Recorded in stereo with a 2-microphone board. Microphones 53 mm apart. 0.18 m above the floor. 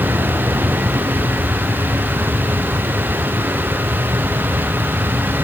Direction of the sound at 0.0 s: 70° right (ahead or behind).